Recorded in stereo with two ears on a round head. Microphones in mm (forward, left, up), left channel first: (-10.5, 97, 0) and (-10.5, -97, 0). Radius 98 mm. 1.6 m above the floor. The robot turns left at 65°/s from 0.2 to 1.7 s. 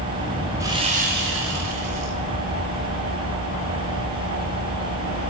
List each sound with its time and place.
0.6 s sawing: 15° right, 7.5 m; by 2.1 s 85° right, 7.5 m